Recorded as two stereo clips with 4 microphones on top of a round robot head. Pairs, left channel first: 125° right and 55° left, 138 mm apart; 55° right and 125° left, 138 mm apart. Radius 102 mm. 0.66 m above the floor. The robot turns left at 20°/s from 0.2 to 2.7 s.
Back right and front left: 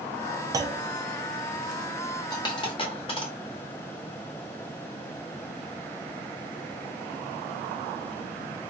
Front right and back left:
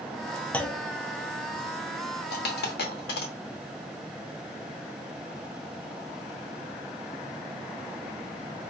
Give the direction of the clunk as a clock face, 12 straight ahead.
11 o'clock.